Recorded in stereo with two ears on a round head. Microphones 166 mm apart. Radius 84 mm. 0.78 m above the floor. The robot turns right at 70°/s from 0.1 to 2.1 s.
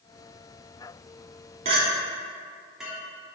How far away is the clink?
About 0.9 m.